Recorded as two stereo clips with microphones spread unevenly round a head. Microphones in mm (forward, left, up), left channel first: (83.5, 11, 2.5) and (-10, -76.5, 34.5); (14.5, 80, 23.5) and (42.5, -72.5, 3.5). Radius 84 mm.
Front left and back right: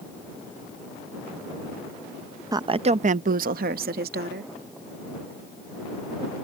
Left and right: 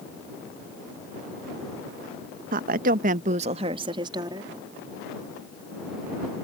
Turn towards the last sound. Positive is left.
turn(degrees=-150)